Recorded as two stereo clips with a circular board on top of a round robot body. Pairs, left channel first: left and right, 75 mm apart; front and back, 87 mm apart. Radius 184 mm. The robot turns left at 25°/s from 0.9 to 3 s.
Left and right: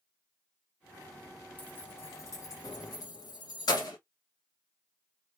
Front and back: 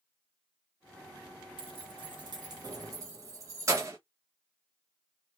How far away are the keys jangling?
About 0.7 m.